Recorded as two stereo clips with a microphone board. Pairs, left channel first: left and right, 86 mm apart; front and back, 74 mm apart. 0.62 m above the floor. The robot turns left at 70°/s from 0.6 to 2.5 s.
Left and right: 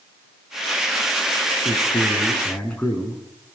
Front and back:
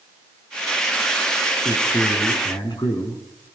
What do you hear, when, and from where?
1.6 s a man speaking: 80° left, 6.5 m; by 3.2 s 20° left, 6.5 m